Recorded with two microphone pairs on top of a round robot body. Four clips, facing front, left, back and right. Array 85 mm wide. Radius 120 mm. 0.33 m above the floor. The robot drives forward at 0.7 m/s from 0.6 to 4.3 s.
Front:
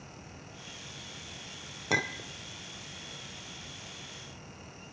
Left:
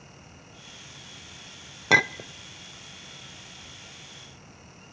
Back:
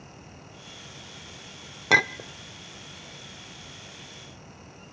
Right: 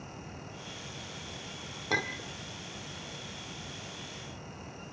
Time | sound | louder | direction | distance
1.9 | a clink | left 10 dB, back 9 dB | 145° left | 0.6 m